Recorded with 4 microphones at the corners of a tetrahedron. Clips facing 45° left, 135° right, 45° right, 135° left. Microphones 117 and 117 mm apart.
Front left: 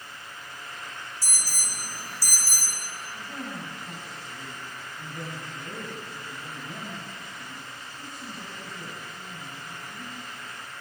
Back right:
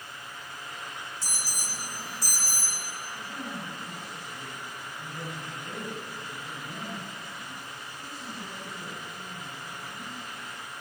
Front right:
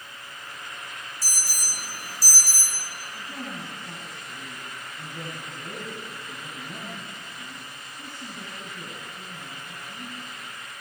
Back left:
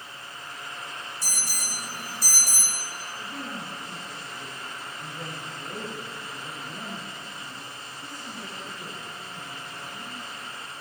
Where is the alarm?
160° left, 5.5 m.